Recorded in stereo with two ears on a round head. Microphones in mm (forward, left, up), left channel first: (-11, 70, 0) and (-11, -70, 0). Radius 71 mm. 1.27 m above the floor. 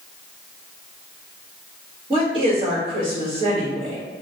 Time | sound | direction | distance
2.1 | a woman speaking | 40° right (ahead or behind) | 2.0 m